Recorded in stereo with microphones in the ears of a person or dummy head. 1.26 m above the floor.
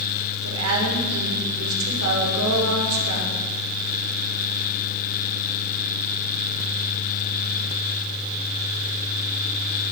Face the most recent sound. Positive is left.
turn(degrees=-80)